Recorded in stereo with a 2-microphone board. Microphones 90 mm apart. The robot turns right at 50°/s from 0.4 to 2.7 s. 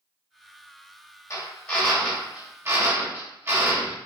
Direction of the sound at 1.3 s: 145° left.